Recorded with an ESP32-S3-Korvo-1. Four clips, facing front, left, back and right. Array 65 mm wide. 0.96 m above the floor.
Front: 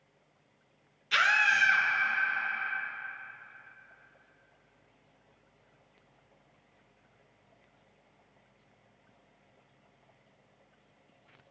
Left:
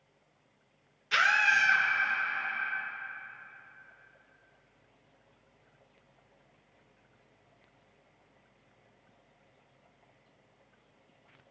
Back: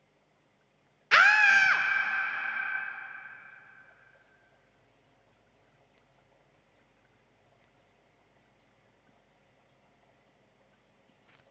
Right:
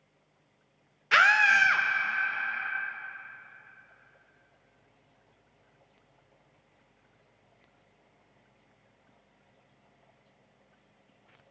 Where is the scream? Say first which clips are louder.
Right 4 dB, back 5 dB; 145° right, 0.6 m.